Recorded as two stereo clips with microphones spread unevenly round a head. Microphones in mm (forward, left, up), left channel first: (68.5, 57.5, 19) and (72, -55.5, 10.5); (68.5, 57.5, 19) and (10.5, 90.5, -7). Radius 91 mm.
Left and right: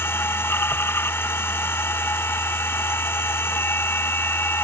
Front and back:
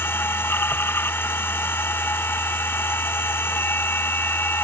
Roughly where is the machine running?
Ahead left.